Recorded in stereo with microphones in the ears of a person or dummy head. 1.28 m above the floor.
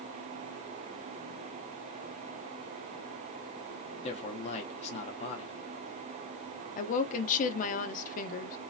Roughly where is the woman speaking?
Left.